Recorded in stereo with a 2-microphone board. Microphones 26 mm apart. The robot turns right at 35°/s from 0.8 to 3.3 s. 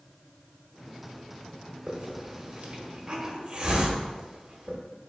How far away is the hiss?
About 0.9 m.